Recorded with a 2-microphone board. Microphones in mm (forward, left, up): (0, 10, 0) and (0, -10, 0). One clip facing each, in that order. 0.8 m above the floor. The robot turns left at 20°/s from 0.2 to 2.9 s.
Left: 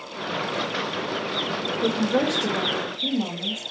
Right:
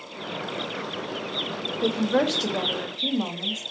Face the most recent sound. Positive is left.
turn(degrees=-55)  # may be behind; listen again after turning